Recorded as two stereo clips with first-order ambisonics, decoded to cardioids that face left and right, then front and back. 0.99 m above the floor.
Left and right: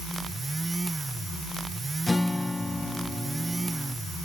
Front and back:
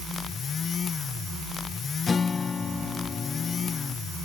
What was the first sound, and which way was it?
A guitar, 20° left.